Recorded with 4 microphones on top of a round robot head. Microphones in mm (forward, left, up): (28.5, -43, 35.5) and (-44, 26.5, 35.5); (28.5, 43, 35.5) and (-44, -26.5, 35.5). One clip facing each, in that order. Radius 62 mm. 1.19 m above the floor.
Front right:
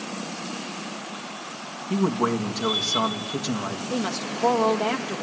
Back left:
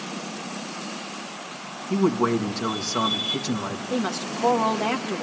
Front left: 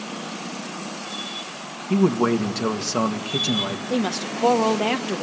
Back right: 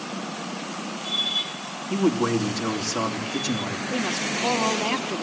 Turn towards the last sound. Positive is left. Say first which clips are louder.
# back left 2 dB, front left 4 dB
turn(degrees=45)